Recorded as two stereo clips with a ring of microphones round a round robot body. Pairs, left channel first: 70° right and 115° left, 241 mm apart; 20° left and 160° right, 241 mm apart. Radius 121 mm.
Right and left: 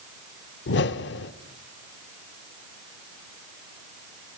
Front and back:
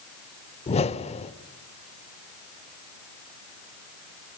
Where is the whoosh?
35° right, 0.8 m.